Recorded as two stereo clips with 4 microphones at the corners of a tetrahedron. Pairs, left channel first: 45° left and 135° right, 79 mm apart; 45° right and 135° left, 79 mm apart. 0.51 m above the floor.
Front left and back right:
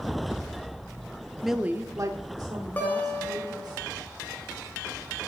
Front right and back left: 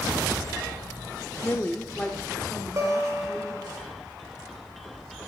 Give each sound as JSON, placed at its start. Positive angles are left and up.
{"t": 1.4, "sound": "a woman speaking", "azimuth_deg": -45, "distance_m": 0.7}
{"t": 2.8, "sound": "a guitar", "azimuth_deg": 105, "distance_m": 1.9}